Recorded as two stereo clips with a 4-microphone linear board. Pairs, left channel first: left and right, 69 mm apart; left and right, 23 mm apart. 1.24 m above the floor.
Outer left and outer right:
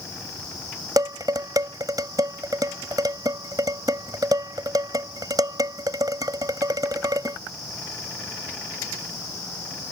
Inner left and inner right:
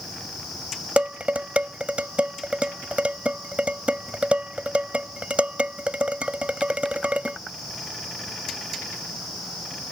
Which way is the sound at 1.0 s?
60° right (ahead or behind).